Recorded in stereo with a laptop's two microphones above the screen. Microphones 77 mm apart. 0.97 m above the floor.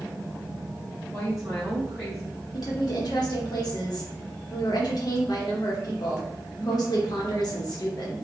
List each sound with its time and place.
1.1 s a woman speaking: centre (ahead or behind), 1.6 m
2.5 s a woman speaking: 60° left (ahead or behind), 1.1 m